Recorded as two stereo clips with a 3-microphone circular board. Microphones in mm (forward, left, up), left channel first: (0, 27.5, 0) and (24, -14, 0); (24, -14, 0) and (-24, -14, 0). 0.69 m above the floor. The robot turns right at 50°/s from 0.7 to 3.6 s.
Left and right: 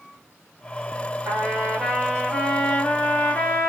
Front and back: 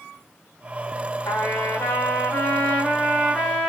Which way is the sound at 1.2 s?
20° right.